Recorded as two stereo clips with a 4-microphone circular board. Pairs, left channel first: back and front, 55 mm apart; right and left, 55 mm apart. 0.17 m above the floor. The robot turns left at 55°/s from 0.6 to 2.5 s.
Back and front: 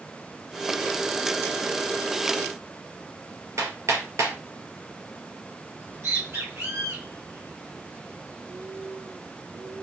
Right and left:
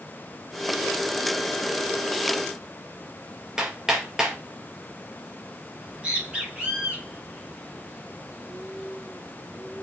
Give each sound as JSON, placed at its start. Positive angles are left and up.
{"t": 3.6, "sound": "hammering", "azimuth_deg": 10, "distance_m": 2.0}
{"t": 5.8, "sound": "a bird", "azimuth_deg": 20, "distance_m": 3.5}